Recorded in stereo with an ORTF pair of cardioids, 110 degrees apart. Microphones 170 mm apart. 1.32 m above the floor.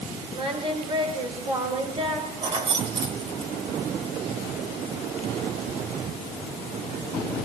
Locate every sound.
0.3 s singing: 30° right, 7 m
2.4 s keys jangling: 35° right, 4 m